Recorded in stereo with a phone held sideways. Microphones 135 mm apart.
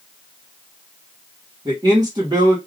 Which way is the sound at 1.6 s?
30° right (ahead or behind).